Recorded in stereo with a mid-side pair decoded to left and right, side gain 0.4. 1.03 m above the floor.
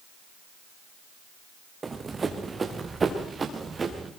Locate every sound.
1.8 s running footsteps: 35° right, 4 m